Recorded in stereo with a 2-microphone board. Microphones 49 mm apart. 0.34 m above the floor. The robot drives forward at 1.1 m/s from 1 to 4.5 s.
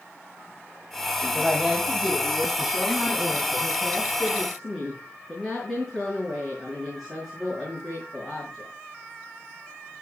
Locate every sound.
1.4 s a woman speaking: 10° right (ahead or behind), 2 m; by 8.7 s 5° right (ahead or behind), 5 m